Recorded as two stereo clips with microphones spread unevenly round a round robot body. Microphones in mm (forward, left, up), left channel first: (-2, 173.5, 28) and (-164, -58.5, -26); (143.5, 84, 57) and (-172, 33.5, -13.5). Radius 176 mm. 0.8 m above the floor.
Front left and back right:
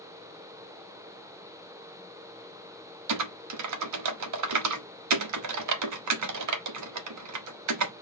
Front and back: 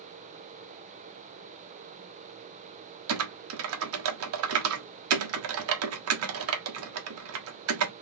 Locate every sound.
3.1 s typing on a keyboard: 130° right, 1.2 m